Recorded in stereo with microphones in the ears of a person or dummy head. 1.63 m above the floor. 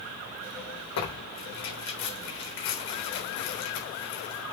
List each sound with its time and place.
1.0 s tearing paper: 70° left (ahead or behind), 3.5 m